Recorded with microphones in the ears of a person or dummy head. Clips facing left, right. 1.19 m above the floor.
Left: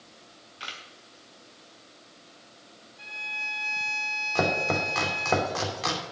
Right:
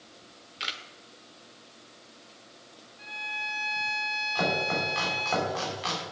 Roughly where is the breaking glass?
No breaking glass in this recording.